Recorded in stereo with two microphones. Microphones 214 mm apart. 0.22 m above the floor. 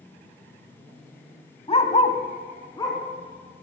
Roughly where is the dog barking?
Left.